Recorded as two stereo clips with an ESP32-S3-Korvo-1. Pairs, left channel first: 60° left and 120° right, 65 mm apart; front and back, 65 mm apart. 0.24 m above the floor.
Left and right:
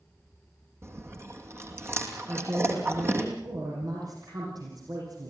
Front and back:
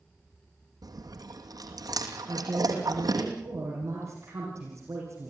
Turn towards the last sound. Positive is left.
turn(degrees=-135)